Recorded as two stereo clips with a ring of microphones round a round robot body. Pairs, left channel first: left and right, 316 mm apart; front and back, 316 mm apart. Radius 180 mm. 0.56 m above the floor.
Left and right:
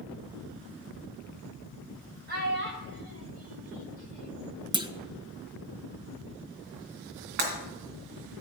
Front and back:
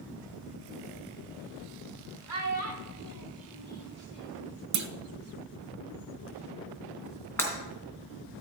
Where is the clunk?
165° right, 0.7 m.